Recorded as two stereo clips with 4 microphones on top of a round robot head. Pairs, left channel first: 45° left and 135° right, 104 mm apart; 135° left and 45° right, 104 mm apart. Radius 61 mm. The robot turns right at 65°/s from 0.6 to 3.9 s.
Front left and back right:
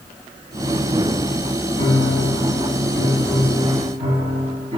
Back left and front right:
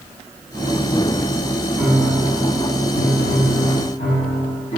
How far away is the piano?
About 3 m.